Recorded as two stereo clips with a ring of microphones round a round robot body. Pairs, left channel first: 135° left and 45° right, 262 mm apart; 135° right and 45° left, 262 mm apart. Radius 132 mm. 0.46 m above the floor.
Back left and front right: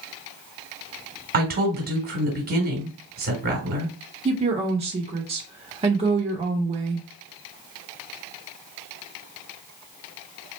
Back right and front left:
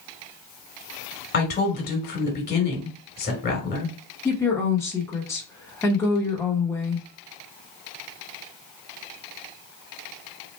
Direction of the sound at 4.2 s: 70° right.